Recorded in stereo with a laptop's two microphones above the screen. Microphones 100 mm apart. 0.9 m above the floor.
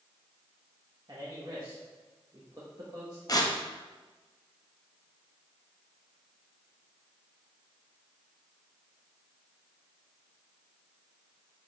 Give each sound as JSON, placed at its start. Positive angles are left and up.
{"t": 1.1, "sound": "a man speaking", "side_deg": -40, "distance_m": 1.0}
{"t": 3.3, "sound": "tearing paper", "side_deg": 40, "distance_m": 0.7}